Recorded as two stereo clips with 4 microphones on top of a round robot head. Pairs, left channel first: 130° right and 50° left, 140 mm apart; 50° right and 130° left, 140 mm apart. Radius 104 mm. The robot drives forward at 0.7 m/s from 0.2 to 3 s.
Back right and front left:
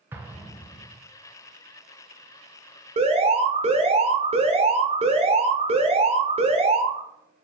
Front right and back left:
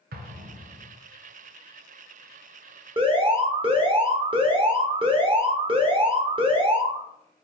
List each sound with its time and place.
0.1 s an explosion: 125° left, 0.6 m; by 0.9 s 150° left, 1.0 m
3.0 s an alarm: 85° left, 0.8 m